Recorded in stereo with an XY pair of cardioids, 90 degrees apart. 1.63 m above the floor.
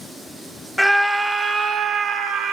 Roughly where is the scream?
Ahead.